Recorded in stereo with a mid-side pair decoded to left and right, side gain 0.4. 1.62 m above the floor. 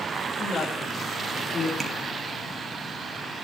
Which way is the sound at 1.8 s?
40° right.